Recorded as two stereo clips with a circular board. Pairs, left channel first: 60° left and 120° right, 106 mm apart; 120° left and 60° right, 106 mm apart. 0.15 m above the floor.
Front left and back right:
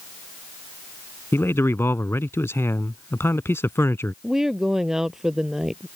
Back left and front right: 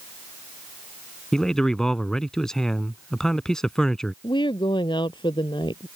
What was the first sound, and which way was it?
A man speaking, 40° left.